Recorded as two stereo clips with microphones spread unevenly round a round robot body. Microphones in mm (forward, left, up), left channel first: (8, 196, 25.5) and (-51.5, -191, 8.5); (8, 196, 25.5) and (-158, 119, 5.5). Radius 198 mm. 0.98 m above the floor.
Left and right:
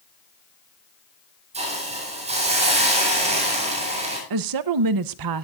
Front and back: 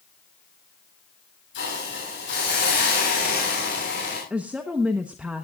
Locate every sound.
1.5 s a hiss: 25° right, 7.5 m
4.3 s a woman speaking: 75° right, 0.8 m